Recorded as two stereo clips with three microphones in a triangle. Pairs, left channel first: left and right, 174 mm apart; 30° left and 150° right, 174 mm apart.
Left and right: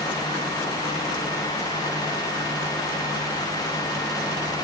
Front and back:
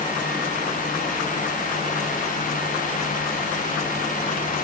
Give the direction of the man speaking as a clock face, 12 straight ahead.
I don't hear a man speaking.